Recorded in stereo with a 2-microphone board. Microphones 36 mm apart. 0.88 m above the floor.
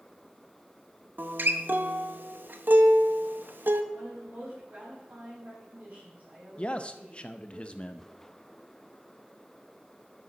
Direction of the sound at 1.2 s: 65° right (ahead or behind).